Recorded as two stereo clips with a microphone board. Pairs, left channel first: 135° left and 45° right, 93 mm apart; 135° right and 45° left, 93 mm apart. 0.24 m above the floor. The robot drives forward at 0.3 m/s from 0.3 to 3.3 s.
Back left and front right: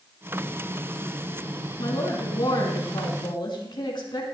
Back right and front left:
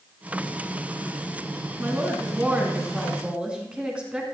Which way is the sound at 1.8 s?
110° left.